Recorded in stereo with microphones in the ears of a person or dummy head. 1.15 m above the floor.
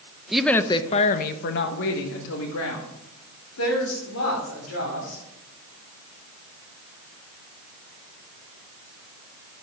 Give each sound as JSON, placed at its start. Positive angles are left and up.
{"t": 0.3, "sound": "a woman speaking", "side_deg": -5, "distance_m": 0.8}